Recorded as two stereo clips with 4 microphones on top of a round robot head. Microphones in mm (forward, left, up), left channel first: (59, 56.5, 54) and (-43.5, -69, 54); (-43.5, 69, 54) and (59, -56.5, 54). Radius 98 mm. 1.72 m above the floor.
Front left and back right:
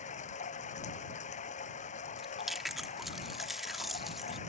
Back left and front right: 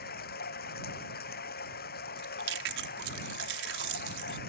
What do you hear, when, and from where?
0.0 s running water: 100° left
2.2 s chewing: 40° right